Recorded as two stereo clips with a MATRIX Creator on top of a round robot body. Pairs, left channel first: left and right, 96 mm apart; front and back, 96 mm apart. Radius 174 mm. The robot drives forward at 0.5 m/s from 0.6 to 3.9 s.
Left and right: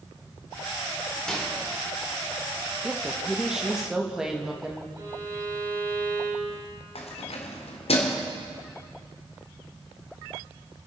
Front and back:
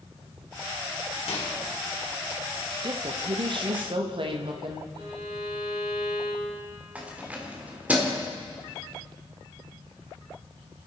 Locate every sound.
1.3 s a microwave: 5° left, 3 m
2.8 s a woman speaking: 170° right, 1.2 m; by 4.8 s 175° right, 1.6 m
5.0 s a violin: 135° right, 6.5 m
7.0 s keys jangling: 105° left, 1.9 m